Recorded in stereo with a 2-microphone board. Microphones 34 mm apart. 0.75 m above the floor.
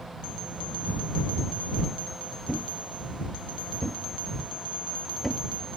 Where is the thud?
5° left (ahead or behind).